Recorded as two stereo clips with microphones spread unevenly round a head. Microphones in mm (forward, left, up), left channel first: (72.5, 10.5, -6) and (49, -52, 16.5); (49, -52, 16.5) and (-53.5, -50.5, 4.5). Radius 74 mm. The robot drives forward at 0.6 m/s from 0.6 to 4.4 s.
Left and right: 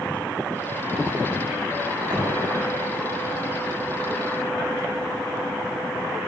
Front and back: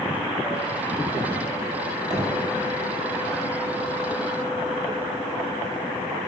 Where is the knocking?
125° right, 9 m.